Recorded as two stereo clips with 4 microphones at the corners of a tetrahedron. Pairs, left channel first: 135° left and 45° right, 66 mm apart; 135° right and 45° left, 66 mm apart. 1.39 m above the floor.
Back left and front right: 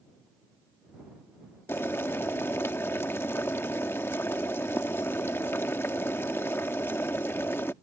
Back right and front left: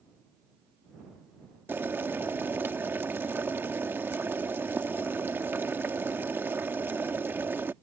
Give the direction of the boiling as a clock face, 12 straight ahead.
9 o'clock.